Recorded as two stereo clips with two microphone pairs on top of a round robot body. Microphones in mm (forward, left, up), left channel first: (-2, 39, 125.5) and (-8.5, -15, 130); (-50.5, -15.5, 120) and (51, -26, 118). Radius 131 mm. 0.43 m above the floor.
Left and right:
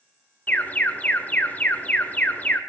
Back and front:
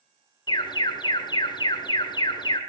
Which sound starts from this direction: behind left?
An alarm, at 0.5 s.